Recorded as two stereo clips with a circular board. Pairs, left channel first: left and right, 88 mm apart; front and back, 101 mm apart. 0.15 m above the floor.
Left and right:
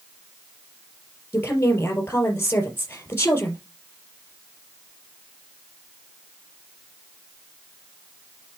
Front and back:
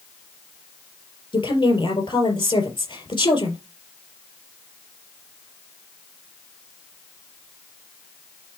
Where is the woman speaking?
30° left, 3.5 m.